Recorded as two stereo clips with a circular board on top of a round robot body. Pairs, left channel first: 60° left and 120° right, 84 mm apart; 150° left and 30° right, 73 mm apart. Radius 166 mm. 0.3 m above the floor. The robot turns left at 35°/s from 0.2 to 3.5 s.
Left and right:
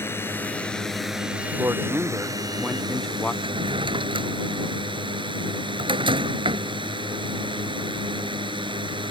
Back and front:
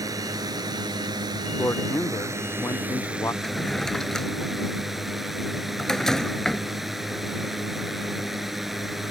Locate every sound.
0.0 s a drone: straight ahead; by 9.1 s 115° right
1.6 s a man speaking: 165° right; by 3.3 s 135° left
3.4 s a drawer: 125° right